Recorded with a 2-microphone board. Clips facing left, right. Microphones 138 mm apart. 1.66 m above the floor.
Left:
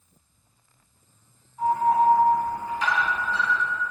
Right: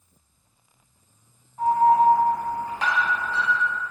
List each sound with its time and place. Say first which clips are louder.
1.6 s an alarm: right 3 dB; 65° right (ahead or behind), 1.3 m